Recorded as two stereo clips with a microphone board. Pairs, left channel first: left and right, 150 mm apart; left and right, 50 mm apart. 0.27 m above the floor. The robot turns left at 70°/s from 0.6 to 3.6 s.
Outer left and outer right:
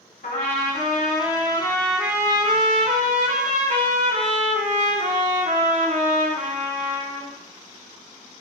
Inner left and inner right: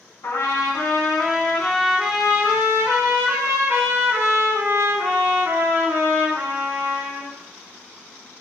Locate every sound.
0.2 s a trumpet: 95° left, 0.9 m; by 7.3 s 115° right, 0.9 m